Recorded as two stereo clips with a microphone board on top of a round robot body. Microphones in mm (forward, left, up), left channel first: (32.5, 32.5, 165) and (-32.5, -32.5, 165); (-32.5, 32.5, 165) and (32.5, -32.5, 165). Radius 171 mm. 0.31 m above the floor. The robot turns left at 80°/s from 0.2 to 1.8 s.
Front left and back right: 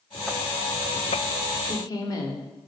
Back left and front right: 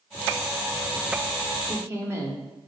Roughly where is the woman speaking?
Ahead.